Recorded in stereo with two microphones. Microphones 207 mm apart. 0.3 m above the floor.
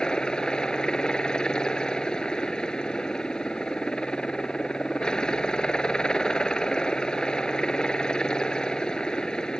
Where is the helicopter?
5° left (ahead or behind).